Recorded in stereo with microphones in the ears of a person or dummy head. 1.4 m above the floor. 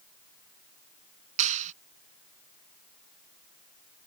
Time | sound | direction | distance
1.4 | a clap | 40° right (ahead or behind) | ?